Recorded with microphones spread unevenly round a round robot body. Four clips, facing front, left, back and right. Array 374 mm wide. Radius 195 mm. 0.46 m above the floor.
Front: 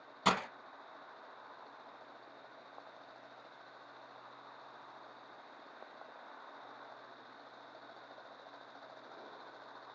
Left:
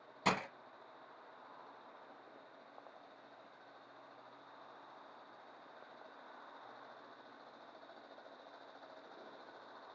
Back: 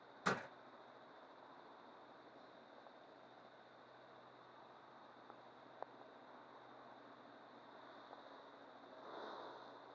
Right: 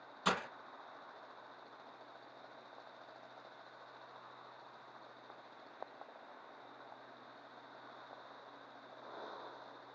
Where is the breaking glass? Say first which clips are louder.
Left 1 dB, front 9 dB; 30° left, 1.6 m.